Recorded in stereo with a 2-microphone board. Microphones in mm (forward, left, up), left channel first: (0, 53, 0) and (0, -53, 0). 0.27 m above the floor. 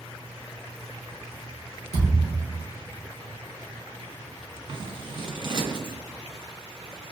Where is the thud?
85° right, 1.7 m.